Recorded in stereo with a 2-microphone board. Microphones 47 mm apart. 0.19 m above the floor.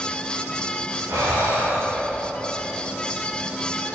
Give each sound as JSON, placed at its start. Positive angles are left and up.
{"t": 1.1, "sound": "breathing", "side_deg": -80, "distance_m": 5.5}